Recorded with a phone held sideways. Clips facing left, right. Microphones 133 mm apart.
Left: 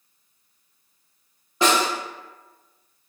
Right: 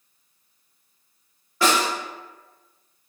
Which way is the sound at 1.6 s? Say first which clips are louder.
Left 1 dB; 20° left (ahead or behind).